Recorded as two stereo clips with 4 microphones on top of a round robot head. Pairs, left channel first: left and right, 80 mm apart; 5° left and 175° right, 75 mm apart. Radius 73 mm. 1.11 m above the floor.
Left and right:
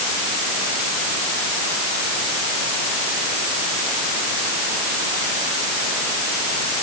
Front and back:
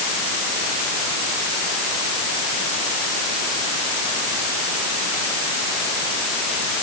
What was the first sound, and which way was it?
Only background noise.